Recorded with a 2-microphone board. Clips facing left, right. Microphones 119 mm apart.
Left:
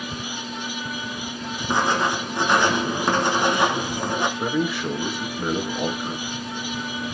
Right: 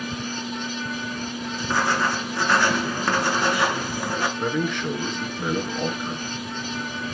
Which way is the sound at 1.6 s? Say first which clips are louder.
Left 2 dB; 20° left (ahead or behind).